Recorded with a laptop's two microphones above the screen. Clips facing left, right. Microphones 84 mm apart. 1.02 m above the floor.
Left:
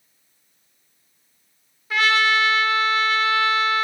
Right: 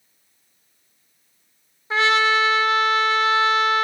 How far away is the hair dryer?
I don't hear a hair dryer.